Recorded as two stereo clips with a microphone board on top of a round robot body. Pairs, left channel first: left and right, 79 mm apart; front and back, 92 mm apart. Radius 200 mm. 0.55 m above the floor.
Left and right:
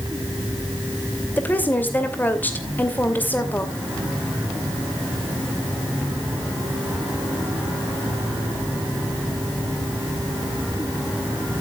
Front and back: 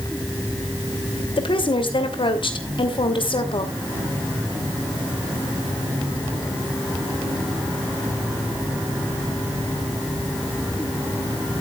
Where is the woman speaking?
25° left, 2.5 m.